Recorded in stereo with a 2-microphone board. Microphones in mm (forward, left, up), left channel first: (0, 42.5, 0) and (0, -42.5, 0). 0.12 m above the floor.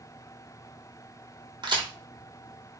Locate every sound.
1.6 s a crack: 65° right (ahead or behind), 0.9 m